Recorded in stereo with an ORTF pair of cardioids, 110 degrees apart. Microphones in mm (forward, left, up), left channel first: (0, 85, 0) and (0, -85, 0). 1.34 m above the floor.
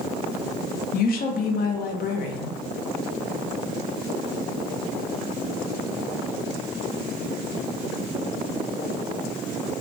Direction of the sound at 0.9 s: 55° left.